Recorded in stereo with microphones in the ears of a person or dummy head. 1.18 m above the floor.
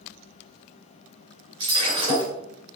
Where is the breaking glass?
25° right (ahead or behind), 2 m.